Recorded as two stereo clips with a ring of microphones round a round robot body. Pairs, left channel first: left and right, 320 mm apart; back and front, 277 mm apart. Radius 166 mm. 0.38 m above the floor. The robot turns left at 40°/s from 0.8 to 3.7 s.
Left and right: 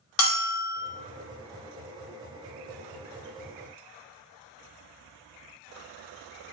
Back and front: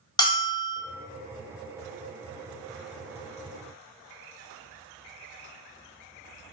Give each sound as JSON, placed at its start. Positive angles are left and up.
{"t": 0.2, "sound": "a bell", "azimuth_deg": 105, "distance_m": 1.1}